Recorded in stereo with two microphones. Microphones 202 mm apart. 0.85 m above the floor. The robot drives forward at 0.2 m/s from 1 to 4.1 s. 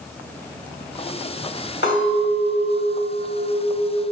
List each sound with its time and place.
1.8 s a clink: 65° left (ahead or behind), 1.2 m; by 4.0 s 50° left (ahead or behind), 1.5 m